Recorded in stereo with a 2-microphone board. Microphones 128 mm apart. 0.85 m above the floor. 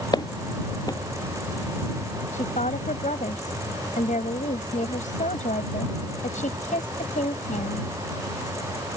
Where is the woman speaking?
85° left.